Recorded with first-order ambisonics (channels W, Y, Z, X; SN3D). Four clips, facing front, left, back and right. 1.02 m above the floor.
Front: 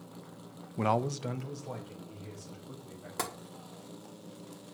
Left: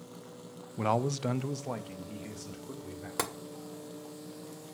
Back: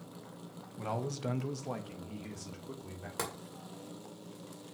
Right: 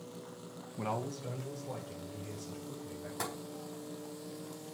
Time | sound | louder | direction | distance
0.8 | a man speaking | left 8 dB, front 7 dB | 25° left | 0.5 m
3.2 | tapping | left 5 dB, front 2 dB | 90° left | 2 m